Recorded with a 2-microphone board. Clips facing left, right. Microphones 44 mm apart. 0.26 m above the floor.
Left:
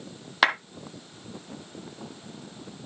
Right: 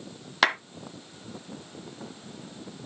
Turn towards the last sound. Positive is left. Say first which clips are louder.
# left 1 dB
turn(degrees=5)  # may be behind; listen again after turning